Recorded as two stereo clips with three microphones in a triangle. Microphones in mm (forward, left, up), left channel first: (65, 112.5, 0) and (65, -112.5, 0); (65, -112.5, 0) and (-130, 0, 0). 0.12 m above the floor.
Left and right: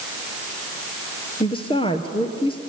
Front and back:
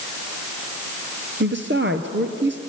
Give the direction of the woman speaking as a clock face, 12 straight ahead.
7 o'clock.